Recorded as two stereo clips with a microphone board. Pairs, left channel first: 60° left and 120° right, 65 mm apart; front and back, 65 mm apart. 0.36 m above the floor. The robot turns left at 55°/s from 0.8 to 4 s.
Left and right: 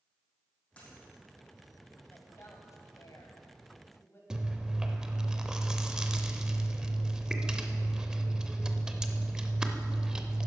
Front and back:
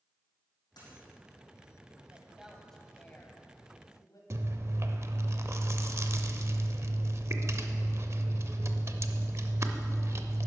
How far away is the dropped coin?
About 5 m.